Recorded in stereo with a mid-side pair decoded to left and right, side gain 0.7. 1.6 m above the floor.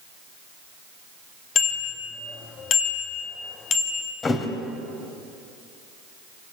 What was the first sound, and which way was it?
A bicycle bell, 40° left.